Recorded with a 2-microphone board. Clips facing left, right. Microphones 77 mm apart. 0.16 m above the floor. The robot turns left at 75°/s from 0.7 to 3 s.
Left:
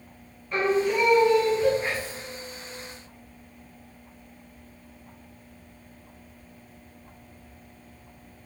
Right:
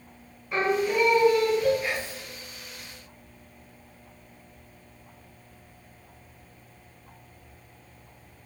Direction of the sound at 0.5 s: 5° right (ahead or behind).